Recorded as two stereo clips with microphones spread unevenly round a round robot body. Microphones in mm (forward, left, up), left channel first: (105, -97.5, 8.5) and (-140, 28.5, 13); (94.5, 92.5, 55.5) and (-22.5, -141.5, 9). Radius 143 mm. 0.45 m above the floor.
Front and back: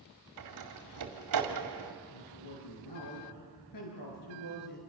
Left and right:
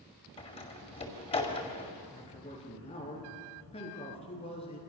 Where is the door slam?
135° left, 2.5 m.